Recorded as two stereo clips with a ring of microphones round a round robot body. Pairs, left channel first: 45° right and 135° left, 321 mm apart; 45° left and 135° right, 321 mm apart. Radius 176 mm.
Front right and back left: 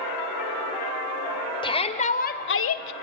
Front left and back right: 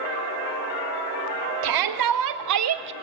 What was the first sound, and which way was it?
A shout, 120° right.